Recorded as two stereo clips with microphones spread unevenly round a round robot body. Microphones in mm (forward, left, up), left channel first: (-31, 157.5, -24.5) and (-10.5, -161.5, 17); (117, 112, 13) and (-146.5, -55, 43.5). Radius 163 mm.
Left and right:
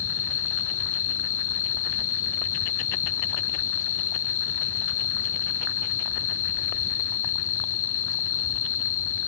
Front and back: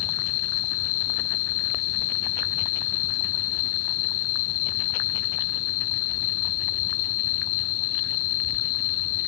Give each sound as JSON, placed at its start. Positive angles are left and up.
{"t": 0.0, "sound": "an insect", "azimuth_deg": 40, "distance_m": 0.9}